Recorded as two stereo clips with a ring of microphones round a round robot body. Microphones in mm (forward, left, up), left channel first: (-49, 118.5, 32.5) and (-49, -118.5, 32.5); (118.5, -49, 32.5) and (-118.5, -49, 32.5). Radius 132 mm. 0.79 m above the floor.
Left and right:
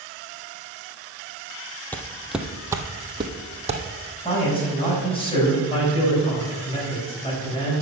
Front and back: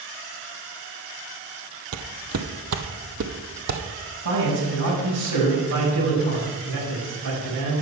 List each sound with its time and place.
1.9 s footsteps: 170° left, 1.3 m; by 3.8 s 150° right, 2 m
4.2 s a man speaking: 155° left, 6 m